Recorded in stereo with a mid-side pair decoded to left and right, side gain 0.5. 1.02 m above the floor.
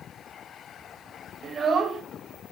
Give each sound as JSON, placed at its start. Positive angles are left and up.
{"t": 1.4, "sound": "a child speaking", "azimuth_deg": -35, "distance_m": 0.9}